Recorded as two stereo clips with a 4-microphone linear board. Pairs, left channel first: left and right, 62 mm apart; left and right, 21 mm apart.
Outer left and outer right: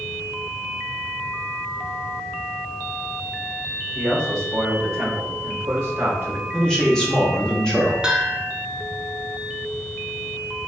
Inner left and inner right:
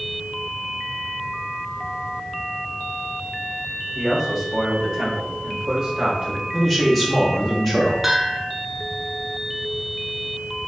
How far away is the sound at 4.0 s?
About 1.1 m.